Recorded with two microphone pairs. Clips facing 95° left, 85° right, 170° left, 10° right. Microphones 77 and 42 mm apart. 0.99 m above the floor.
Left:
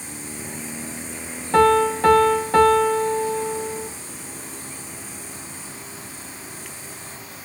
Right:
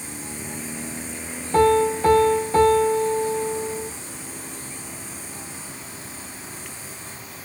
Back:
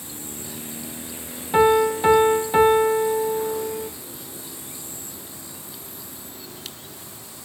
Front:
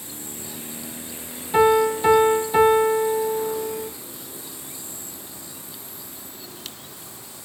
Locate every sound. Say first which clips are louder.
1.5 s a piano: left 1 dB, even; 115° left, 0.8 m